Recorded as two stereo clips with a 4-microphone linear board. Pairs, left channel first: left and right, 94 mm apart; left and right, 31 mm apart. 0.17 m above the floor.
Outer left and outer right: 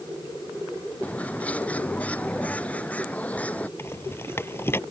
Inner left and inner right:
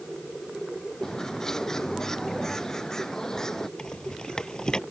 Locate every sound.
1.0 s a bird: 15° left (ahead or behind)
3.8 s a rattle: 25° left (ahead or behind)